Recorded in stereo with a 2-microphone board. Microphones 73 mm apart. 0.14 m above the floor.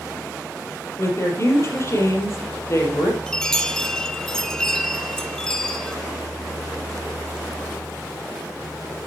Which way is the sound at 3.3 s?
10° left (ahead or behind).